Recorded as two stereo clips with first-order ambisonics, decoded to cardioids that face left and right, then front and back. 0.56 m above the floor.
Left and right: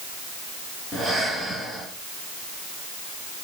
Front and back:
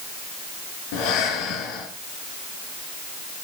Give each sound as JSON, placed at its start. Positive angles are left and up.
{"t": 0.9, "sound": "breathing", "azimuth_deg": -10, "distance_m": 3.0}